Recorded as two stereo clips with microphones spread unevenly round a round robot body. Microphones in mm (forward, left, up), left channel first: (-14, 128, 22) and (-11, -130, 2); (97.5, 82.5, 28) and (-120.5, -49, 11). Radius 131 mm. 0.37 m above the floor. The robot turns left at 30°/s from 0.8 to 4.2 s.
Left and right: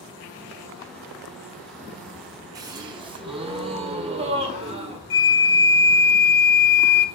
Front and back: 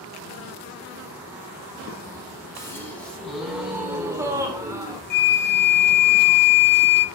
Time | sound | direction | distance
2.5 | a gasp | 40° right | 1.1 m
5.1 | a flute | 65° left | 0.6 m